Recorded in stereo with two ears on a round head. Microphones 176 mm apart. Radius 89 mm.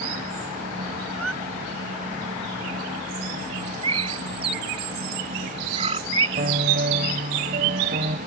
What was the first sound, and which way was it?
A squeak, 85° right.